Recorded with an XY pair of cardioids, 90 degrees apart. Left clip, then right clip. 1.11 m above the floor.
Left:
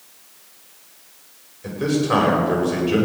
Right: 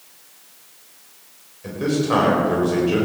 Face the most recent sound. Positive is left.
turn(degrees=15)